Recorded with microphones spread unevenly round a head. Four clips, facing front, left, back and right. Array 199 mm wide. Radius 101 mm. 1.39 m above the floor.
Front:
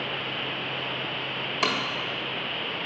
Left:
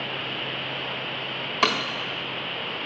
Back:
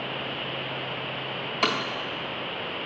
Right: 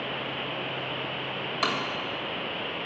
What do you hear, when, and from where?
1.6 s breaking glass: 95° left, 1.4 m